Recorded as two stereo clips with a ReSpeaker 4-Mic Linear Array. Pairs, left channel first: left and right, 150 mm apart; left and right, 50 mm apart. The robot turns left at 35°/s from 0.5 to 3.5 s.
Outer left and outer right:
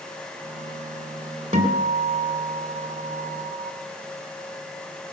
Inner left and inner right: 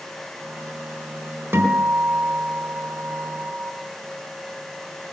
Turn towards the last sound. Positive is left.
turn(degrees=-115)